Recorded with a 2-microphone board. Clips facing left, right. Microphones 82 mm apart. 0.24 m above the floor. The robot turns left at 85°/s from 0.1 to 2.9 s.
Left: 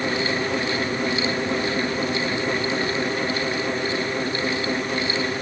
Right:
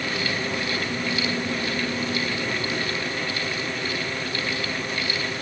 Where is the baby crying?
No baby crying in this recording.